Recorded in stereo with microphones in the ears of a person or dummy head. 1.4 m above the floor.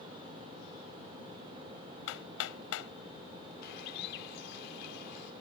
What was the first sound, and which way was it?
Hammering, 80° left.